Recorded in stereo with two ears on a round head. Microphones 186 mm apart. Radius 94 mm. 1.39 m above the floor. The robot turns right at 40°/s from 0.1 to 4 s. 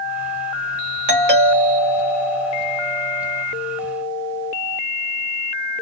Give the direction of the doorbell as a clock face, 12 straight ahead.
2 o'clock.